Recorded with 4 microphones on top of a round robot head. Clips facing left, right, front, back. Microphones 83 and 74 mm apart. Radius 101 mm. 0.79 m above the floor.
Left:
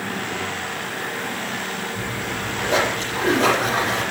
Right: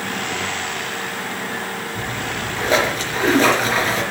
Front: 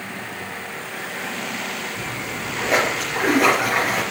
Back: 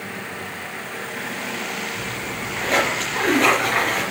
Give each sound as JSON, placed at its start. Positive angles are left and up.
{"t": 1.9, "sound": "a splash", "azimuth_deg": -80, "distance_m": 3.5}